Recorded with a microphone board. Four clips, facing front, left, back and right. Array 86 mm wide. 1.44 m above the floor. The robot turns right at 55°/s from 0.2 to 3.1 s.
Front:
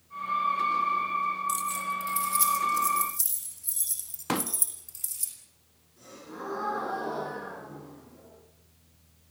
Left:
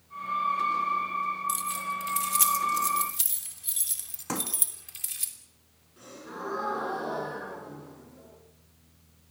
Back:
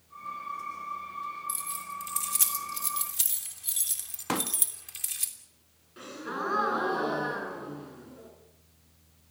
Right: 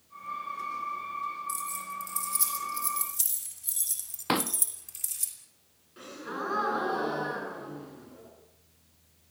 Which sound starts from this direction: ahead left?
Keys jangling, at 1.5 s.